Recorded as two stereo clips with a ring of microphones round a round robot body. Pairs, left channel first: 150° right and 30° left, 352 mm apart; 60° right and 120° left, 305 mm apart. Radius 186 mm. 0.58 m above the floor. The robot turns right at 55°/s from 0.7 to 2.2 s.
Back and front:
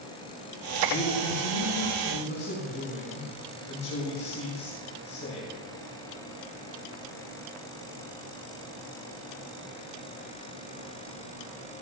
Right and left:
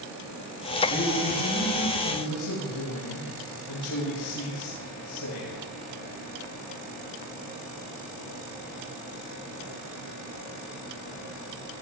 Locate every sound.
0.9 s a man speaking: 150° right, 7.5 m; by 5.5 s 80° right, 7.5 m